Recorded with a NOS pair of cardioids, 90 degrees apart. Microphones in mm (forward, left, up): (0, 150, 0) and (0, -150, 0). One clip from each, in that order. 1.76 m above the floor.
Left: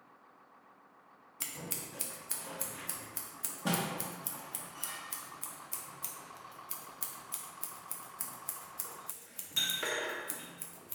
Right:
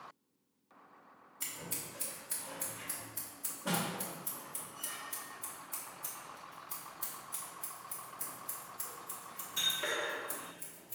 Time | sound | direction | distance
1.4 | scissors | 55° left | 1.0 m